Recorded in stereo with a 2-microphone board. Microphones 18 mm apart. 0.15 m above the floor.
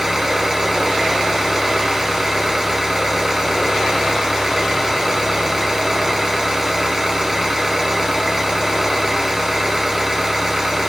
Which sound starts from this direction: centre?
An engine running, at 0.0 s.